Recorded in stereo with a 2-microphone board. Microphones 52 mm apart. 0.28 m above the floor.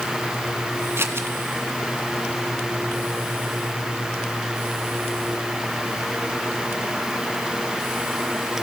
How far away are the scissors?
About 1.9 m.